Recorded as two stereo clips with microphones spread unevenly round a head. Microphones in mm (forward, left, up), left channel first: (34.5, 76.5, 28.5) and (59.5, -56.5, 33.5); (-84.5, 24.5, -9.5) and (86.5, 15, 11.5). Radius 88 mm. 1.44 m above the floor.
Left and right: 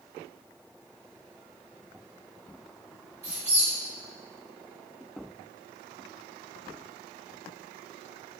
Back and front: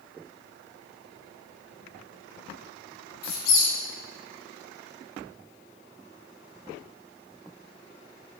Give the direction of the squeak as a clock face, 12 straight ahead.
5 o'clock.